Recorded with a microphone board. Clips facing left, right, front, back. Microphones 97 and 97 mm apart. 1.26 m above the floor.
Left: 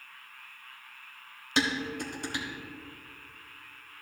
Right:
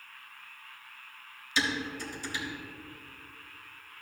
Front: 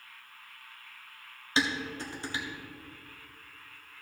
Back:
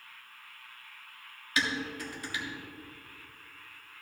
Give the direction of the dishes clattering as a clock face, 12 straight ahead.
10 o'clock.